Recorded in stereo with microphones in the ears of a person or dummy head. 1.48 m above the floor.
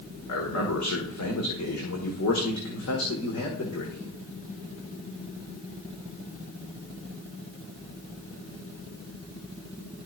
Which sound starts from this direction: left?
A man speaking, at 0.3 s.